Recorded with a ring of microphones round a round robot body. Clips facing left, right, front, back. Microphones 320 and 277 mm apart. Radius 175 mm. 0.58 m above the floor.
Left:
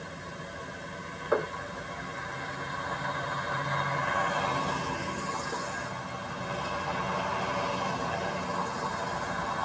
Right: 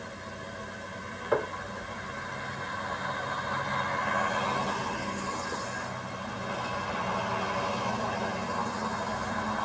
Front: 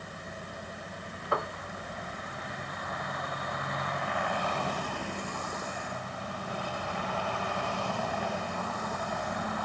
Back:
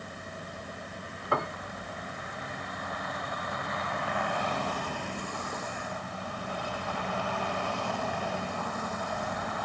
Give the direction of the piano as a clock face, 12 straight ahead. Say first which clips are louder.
Even, back 1 dB; 6 o'clock.